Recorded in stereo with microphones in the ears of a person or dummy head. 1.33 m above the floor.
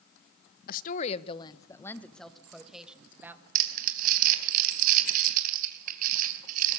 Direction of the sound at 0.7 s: 55° left (ahead or behind).